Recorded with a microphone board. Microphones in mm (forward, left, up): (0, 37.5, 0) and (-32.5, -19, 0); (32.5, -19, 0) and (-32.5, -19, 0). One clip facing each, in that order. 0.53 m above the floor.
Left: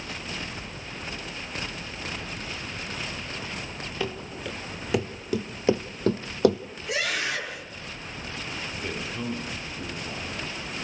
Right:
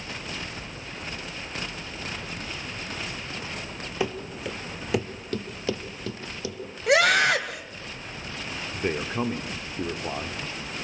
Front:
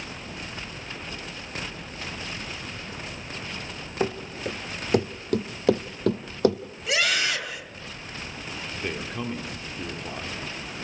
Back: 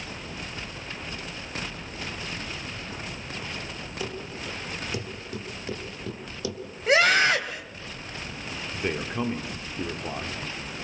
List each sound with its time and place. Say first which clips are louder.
4.0 s running footsteps: right 3 dB, front 8 dB; 45° right, 2.5 m; by 6.6 s 40° left, 1.2 m
6.9 s a scream: right 10 dB, back 6 dB; 130° right, 2.5 m
8.7 s a man speaking: right 9 dB, back 4 dB; 110° right, 1.4 m